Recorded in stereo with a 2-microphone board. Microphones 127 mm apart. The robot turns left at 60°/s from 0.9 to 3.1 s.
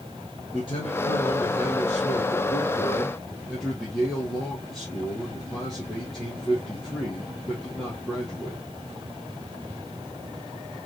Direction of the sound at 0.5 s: 135° left.